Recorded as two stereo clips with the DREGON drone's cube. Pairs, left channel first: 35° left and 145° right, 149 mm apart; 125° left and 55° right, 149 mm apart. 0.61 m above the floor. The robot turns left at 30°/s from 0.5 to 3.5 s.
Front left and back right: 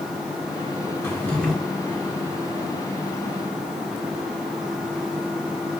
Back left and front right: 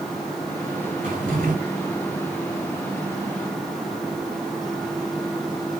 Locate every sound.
1.0 s a drawer: 35° right, 1.3 m; by 1.6 s 50° right, 1.3 m